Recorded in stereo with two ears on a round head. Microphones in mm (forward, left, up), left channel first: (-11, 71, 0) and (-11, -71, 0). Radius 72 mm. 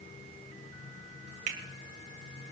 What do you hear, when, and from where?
1.5 s a finger snap: 50° right (ahead or behind), 2 m